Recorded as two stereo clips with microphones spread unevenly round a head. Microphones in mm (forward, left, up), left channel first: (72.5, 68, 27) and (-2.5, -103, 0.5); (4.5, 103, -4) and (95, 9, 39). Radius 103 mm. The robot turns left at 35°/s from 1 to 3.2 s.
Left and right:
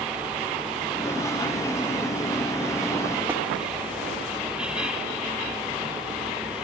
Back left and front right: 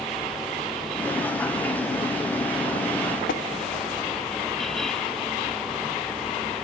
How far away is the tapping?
About 1.0 m.